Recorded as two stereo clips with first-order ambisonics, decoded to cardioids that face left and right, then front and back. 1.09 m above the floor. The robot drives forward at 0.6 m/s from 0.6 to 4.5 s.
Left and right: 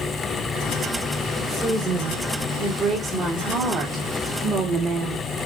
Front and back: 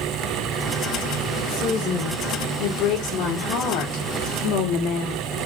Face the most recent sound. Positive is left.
turn(degrees=-25)